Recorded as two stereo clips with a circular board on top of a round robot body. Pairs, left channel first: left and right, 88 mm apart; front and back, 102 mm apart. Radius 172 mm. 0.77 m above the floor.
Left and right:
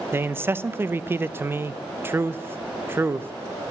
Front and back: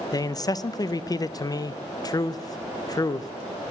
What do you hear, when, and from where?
0.1 s a man speaking: 35° right, 0.6 m